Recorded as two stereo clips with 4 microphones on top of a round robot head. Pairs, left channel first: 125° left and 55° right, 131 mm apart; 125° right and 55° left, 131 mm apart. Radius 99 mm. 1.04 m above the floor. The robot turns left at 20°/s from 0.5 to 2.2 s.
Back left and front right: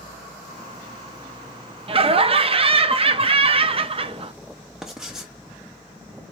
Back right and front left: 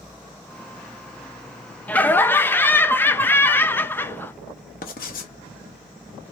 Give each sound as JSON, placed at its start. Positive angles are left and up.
{"t": 1.9, "sound": "laughter", "azimuth_deg": -50, "distance_m": 0.6}
{"t": 4.8, "sound": "writing", "azimuth_deg": -145, "distance_m": 0.5}